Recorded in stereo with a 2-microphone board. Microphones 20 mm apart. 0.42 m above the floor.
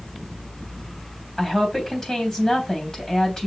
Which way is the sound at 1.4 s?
25° left (ahead or behind).